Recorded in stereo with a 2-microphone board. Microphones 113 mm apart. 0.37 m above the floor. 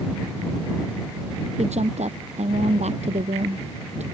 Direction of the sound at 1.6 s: 80° right.